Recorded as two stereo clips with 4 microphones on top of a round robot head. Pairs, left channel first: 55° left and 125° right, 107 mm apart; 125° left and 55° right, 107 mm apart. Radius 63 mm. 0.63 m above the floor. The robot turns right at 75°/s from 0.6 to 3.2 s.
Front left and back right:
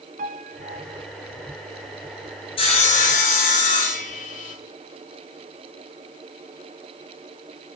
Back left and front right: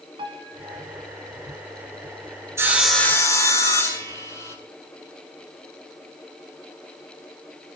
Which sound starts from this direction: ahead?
Sawing, at 2.6 s.